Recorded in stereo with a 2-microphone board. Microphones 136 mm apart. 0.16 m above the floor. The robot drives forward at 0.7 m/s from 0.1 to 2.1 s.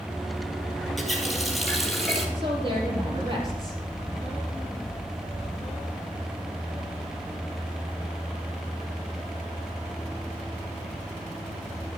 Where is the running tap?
Centre (ahead or behind), 2.5 m.